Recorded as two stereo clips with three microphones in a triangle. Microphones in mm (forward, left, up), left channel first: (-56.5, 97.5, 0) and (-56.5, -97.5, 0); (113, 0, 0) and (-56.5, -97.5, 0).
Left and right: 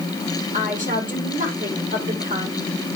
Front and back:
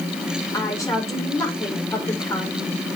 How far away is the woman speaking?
About 4.5 m.